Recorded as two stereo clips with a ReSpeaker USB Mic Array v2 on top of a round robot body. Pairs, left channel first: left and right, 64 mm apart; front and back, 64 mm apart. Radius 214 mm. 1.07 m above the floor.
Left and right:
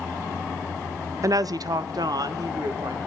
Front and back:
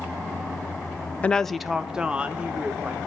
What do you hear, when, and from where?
1.2 s a woman speaking: 65° right, 0.6 m; by 3.1 s 115° right, 2.0 m